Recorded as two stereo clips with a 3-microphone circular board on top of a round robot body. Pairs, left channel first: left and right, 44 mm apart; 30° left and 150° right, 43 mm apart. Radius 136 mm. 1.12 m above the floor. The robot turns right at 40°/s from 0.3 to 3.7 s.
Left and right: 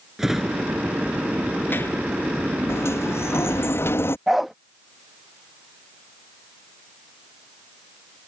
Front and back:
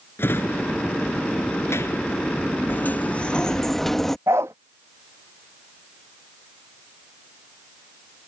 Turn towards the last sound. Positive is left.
turn(degrees=-175)